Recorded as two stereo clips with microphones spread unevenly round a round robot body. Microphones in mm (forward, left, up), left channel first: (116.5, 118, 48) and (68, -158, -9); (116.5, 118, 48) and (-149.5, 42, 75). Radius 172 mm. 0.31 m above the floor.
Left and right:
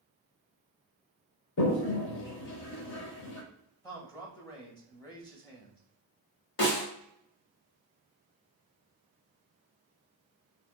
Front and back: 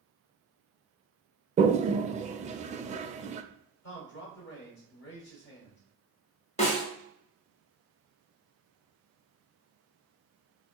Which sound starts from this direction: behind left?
A toilet flushing, at 1.6 s.